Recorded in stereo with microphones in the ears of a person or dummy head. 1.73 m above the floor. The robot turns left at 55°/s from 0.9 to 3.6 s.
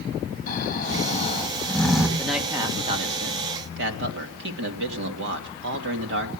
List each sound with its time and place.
0.5 s snoring: 55° left, 5 m; by 2.1 s 10° right, 5 m
2.2 s a man speaking: 5° left, 3 m; by 6.3 s 75° right, 3 m